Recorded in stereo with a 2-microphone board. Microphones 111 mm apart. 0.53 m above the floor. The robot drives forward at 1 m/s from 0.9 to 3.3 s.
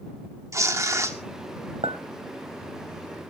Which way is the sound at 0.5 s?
30° right (ahead or behind).